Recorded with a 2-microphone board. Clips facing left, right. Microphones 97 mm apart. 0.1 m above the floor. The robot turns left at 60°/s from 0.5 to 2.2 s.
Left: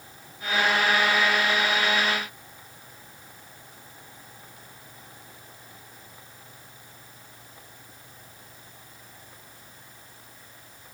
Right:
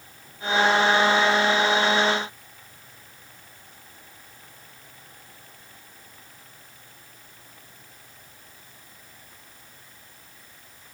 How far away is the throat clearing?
No throat clearing in this recording.